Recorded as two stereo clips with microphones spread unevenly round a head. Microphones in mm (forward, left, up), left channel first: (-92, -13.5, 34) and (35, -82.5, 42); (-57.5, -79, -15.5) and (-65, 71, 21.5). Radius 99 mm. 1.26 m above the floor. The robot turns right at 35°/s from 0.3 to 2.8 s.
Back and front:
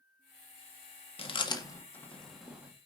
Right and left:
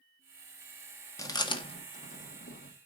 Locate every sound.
1.2 s chewing: 160° right, 1.7 m; by 2.9 s 100° right, 1.7 m